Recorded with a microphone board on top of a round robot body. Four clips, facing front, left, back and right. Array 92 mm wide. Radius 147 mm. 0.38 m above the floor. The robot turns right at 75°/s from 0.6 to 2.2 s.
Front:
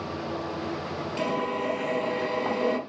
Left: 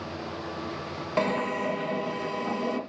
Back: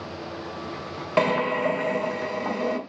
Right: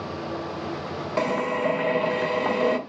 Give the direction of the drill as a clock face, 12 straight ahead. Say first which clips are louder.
Right 3 dB, back 7 dB; 6 o'clock.